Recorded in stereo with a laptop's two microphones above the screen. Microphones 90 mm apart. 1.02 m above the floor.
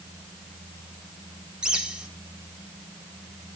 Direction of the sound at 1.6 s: 10° right (ahead or behind).